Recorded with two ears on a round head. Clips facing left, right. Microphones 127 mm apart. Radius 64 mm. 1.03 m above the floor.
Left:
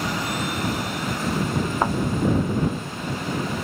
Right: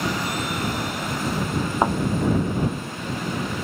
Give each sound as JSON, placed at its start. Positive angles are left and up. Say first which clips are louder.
{"t": 1.8, "sound": "a thud", "louder": "right 3 dB", "side_deg": -10}